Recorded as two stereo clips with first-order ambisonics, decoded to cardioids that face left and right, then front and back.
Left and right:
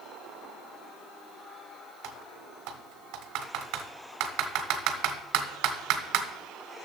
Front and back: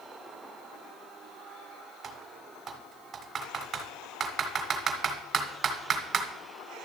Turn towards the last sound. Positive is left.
turn(degrees=-115)